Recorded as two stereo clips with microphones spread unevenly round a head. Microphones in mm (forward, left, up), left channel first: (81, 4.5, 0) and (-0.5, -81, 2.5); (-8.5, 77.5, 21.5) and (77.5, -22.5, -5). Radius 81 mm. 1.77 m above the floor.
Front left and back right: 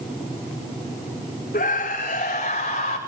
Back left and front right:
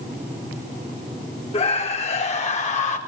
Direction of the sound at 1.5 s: 95° left.